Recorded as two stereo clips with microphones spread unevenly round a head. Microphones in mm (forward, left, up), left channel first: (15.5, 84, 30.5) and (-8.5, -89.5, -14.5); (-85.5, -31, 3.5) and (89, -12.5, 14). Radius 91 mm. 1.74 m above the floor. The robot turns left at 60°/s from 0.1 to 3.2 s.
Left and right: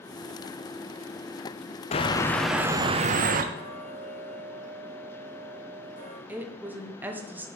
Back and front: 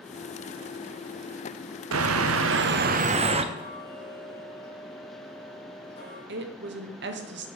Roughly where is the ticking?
Behind left.